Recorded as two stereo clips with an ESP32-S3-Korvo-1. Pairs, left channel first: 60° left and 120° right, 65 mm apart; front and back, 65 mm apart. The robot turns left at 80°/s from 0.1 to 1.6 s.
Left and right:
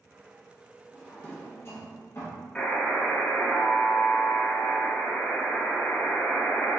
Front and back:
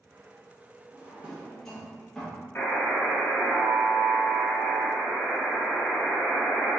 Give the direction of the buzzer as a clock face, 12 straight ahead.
12 o'clock.